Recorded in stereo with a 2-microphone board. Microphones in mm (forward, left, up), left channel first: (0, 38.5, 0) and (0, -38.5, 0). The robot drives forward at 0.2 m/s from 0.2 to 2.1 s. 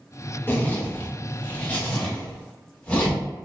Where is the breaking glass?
I don't hear breaking glass.